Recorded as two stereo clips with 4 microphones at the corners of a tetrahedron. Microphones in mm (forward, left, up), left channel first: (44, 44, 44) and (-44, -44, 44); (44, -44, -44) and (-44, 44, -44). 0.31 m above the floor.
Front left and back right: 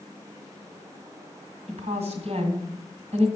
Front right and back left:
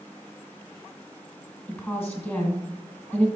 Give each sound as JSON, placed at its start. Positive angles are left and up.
{"t": 1.7, "sound": "a woman speaking", "azimuth_deg": -120, "distance_m": 2.0}